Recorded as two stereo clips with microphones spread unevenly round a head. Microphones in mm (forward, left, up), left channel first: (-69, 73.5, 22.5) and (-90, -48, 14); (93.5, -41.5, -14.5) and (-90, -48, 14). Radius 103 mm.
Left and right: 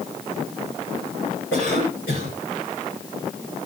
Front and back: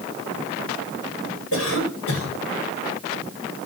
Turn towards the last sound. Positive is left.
turn(degrees=30)